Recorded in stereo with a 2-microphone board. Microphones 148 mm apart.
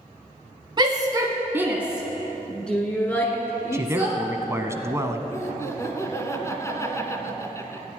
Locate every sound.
0.8 s a shout: 30° right (ahead or behind), 1.2 m; by 4.2 s 20° left (ahead or behind), 2.5 m
3.7 s a man speaking: 20° right (ahead or behind), 1.0 m
5.3 s laughter: 20° left (ahead or behind), 1.8 m